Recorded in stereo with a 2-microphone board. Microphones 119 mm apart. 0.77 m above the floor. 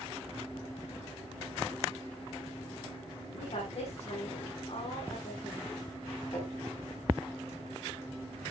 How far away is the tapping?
About 5.5 m.